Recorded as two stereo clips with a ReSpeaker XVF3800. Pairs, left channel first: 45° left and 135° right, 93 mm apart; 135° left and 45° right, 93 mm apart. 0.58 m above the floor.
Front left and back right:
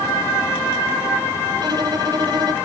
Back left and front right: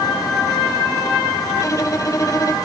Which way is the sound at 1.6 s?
175° right.